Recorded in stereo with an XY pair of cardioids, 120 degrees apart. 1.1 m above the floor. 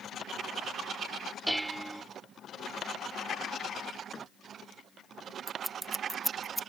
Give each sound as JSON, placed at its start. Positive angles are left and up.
{"t": 1.5, "sound": "dishes clattering", "azimuth_deg": -5}
{"t": 4.1, "sound": "a thud", "azimuth_deg": 35}
{"t": 5.5, "sound": "scissors", "azimuth_deg": -10}